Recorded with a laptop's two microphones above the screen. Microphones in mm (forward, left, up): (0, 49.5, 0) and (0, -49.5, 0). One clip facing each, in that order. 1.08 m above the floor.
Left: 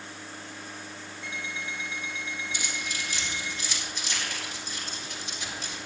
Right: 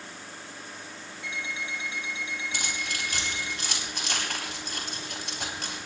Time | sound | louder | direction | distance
1.2 | an alarm clock | right 1 dB | 65° left (ahead or behind) | 3.5 m
2.5 | keys jangling | right 1 dB | 65° right (ahead or behind) | 4 m